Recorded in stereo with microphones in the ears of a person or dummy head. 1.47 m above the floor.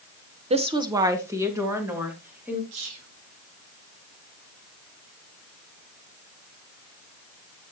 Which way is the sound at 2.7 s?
75° right (ahead or behind).